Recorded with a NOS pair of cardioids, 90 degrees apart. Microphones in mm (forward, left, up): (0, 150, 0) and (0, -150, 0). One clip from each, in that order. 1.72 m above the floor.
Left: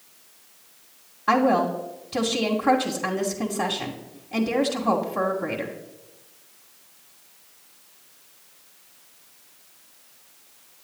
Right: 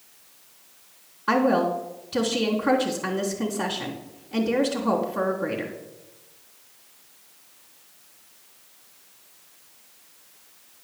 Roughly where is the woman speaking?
Ahead.